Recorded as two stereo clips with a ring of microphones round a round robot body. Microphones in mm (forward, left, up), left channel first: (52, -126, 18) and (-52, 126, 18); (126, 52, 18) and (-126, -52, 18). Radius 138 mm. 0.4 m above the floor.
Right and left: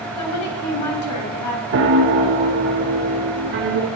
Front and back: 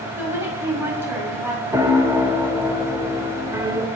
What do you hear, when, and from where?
0.2 s a woman speaking: 75° right, 3 m
1.7 s a piano: 130° left, 0.9 m